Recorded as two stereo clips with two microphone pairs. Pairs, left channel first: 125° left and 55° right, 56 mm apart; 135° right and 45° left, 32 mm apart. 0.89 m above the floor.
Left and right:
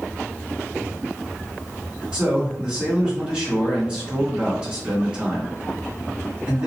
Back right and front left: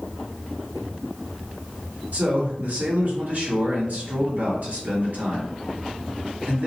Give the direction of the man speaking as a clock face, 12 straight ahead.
12 o'clock.